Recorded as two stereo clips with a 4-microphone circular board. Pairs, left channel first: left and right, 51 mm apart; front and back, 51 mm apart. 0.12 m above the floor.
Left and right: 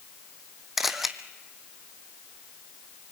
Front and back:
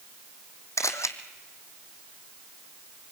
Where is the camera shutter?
5° right, 1.2 m.